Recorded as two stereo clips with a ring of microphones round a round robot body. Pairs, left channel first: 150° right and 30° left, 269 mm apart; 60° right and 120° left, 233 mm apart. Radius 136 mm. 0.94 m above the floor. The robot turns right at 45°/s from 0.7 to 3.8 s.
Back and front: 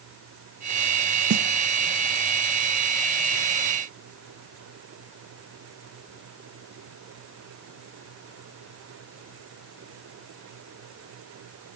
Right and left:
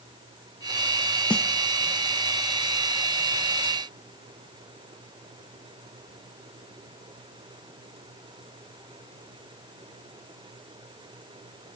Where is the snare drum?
20° left, 0.6 m; by 1.4 s 30° left, 0.6 m.